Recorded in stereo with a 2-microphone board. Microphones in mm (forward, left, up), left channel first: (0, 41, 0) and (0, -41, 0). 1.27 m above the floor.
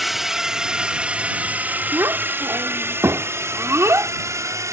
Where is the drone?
Centre (ahead or behind); by 4.7 s 40° right (ahead or behind).